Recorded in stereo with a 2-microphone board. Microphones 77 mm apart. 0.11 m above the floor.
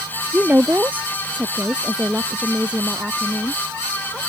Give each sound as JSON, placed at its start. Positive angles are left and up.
{"t": 0.3, "sound": "a woman speaking", "side_deg": -25}